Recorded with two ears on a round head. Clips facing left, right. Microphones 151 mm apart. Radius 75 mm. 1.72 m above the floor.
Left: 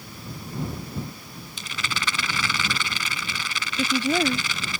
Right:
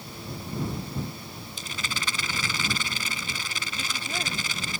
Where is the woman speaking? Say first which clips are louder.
Left 15 dB; 60° left (ahead or behind).